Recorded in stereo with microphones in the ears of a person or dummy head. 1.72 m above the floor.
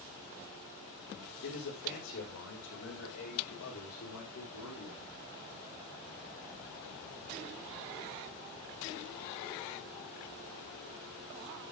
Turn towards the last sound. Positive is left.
turn(degrees=80)